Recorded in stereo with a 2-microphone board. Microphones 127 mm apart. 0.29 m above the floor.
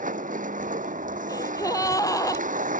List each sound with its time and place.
0.0 s a vehicle: 85° right
1.3 s a gasp: 25° left (ahead or behind)